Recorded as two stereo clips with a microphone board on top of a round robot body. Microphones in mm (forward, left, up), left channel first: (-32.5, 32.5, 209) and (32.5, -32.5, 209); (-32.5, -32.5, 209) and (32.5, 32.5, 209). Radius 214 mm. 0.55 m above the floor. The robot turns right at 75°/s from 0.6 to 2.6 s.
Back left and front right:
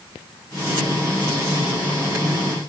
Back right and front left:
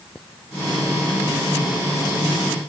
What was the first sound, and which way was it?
Only background noise.